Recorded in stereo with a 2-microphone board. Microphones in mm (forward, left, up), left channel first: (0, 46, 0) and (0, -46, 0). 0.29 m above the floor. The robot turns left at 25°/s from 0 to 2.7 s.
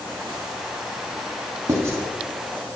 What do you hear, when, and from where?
1.7 s writing: 35° right (ahead or behind), 0.6 m; by 2.0 s 30° right (ahead or behind), 0.6 m